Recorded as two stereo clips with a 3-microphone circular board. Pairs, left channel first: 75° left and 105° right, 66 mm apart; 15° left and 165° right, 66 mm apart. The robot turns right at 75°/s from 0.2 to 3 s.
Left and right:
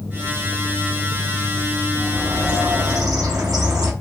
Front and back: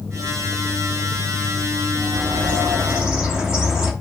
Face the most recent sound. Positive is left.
turn(degrees=-95)